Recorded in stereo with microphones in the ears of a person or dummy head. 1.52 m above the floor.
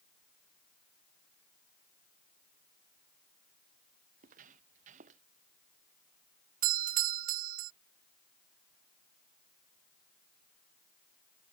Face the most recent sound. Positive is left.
turn(degrees=-50)  # may be behind; listen again after turning